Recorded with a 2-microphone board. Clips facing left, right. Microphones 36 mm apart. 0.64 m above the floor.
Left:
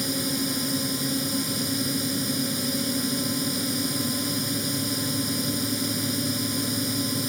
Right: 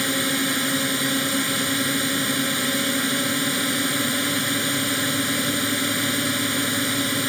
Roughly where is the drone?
Right.